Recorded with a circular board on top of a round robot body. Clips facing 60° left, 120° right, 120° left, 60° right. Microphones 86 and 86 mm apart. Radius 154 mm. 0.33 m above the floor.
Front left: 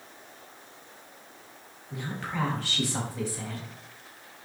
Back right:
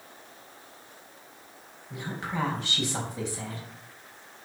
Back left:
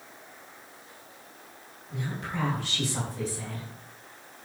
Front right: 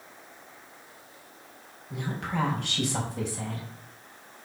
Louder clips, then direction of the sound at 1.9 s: Back right 1 dB, front right 2 dB; 50° right.